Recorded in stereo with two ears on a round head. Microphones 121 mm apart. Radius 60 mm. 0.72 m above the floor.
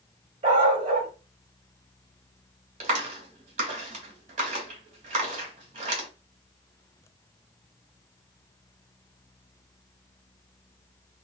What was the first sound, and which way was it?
A dog barking, 45° right (ahead or behind).